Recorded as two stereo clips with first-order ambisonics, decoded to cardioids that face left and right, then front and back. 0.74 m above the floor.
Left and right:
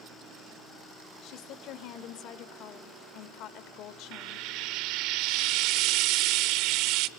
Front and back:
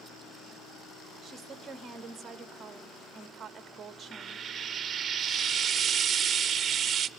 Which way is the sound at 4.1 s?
115° right.